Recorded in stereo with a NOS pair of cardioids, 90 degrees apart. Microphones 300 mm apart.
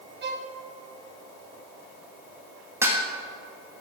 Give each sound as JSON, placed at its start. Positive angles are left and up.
{"t": 0.2, "sound": "a violin", "azimuth_deg": -40, "distance_m": 1.0}
{"t": 2.8, "sound": "dishes clattering", "azimuth_deg": -10, "distance_m": 1.7}